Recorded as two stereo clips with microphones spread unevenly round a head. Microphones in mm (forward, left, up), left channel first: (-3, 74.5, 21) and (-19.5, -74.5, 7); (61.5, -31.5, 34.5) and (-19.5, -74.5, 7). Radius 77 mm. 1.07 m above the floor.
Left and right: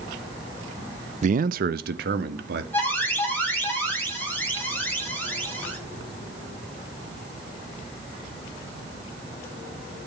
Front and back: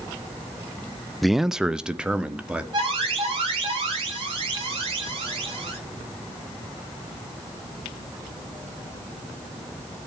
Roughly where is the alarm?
Behind.